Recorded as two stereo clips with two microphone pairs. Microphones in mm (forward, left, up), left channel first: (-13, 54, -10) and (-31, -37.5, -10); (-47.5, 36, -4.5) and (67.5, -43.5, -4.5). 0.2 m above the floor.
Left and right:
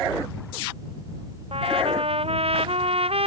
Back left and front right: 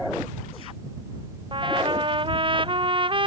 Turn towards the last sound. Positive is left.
turn(degrees=-90)